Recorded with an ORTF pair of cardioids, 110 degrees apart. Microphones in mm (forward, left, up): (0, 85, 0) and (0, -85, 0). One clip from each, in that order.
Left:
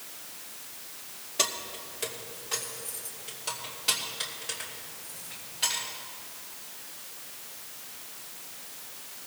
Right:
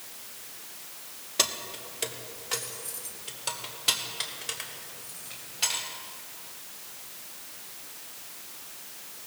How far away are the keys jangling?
About 1.0 m.